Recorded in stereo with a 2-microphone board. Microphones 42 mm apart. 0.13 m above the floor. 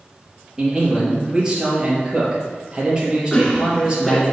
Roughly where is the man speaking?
Right.